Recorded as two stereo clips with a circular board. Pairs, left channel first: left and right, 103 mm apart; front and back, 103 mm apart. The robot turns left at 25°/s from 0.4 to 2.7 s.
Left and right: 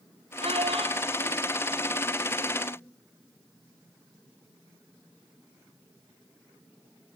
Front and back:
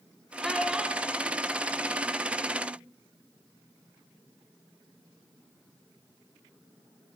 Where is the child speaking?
90° right, 3 m; by 2.8 s 145° right, 3 m.